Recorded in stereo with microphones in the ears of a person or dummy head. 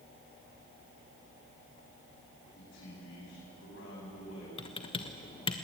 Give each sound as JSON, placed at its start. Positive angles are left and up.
{"t": 2.5, "sound": "a man speaking", "side_deg": 80, "distance_m": 10.0}
{"t": 4.6, "sound": "typing on a keyboard", "side_deg": 35, "distance_m": 1.2}